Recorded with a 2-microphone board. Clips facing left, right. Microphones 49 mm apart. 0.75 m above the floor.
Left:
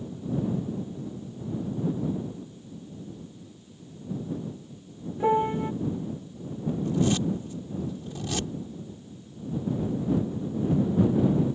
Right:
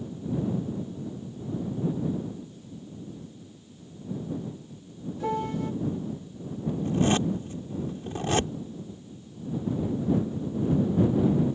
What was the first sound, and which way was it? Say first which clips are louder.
A piano: left 6 dB; 25° left (ahead or behind).